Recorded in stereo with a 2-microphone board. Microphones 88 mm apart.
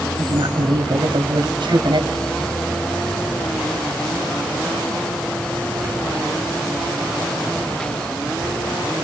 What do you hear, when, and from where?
0.2 s a woman speaking: 70° right (ahead or behind), 3 m